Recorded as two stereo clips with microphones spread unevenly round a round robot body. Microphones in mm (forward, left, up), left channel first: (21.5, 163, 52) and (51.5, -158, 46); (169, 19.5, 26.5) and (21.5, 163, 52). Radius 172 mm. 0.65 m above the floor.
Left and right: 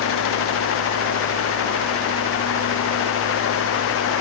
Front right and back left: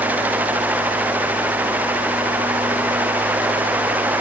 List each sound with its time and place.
Only background noise.